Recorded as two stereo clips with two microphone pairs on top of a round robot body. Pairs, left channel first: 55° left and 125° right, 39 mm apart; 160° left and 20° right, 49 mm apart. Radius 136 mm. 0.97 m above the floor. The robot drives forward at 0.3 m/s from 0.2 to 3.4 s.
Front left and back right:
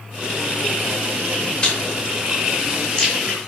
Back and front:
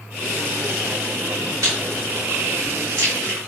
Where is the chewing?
15° right, 1.2 m; by 3.5 s 25° right, 0.8 m.